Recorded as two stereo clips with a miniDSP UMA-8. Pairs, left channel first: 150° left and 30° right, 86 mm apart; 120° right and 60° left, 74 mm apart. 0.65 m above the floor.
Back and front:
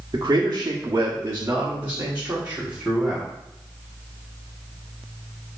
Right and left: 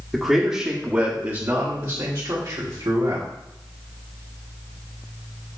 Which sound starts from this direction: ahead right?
A man speaking, at 0.1 s.